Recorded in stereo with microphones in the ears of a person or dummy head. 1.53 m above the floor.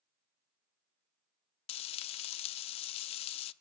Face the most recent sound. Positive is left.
turn(degrees=30)  # may be behind; listen again after turning